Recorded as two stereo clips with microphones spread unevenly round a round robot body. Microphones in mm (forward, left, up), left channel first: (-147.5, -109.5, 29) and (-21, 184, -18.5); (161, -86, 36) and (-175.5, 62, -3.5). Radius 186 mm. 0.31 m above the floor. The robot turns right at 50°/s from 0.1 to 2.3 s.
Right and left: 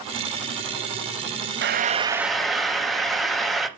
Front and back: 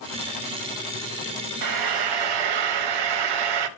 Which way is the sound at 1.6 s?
120° left.